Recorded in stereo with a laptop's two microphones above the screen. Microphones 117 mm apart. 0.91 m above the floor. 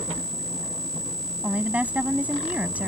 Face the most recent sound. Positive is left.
turn(degrees=-15)  # may be behind; listen again after turning